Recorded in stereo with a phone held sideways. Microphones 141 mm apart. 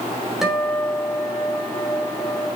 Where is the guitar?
Centre (ahead or behind), 3.5 m.